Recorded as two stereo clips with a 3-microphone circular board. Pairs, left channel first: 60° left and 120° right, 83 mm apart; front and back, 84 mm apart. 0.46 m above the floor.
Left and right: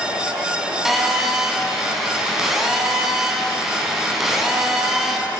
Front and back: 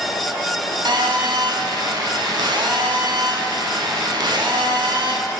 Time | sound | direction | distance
0.8 | a phone buzzing | 155° left | 0.9 m